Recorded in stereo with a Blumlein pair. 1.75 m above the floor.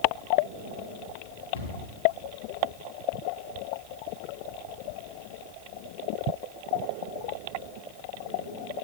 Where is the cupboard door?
60° left, 3 m.